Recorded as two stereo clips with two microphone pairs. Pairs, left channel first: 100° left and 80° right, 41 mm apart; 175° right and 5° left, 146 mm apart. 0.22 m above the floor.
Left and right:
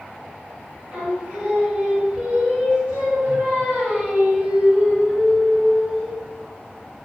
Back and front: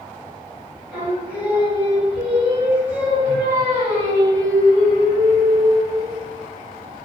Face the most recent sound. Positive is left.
turn(degrees=-75)